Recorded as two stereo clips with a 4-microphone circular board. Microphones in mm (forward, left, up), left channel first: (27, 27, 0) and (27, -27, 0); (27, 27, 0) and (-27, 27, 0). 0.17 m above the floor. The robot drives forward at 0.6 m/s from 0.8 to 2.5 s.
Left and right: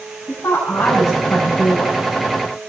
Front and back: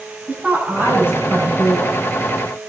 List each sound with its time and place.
0.3 s a woman speaking: 125° left, 7.5 m; by 2.0 s 130° left, 8 m